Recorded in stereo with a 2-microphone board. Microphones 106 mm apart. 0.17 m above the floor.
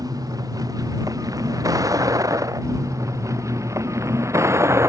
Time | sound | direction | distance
0.0 | a vehicle | 35° right (ahead or behind) | ?